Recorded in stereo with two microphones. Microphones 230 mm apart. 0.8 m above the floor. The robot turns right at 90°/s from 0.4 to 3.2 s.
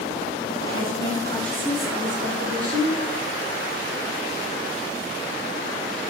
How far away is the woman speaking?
About 2.0 m.